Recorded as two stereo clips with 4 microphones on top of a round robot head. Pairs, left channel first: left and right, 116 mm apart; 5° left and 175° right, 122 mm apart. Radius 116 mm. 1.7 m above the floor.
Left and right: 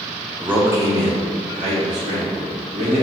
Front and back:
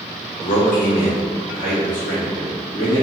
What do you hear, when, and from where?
0.4 s a man speaking: 10° right, 0.7 m; by 3.0 s 65° right, 1.7 m